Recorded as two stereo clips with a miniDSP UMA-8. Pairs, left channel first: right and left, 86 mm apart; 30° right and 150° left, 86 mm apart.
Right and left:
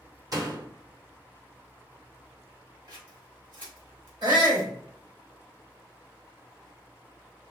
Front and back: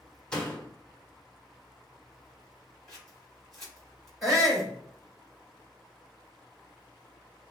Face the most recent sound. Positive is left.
turn(degrees=60)